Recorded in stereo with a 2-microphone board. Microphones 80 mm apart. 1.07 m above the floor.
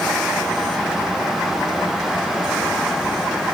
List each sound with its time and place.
Only background noise.